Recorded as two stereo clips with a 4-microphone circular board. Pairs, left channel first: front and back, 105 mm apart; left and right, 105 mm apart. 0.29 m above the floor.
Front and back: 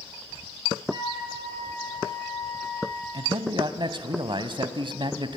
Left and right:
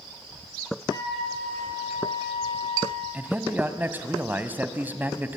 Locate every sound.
0.9 s a flute: 140° left, 8 m
3.1 s a man speaking: 160° right, 1.5 m